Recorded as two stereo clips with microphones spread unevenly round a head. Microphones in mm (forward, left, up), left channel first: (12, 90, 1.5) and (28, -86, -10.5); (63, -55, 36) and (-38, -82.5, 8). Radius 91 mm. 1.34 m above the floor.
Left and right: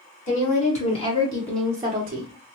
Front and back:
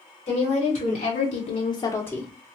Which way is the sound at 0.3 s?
50° left.